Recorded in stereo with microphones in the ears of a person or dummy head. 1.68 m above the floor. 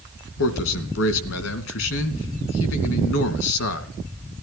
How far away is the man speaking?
About 2.5 m.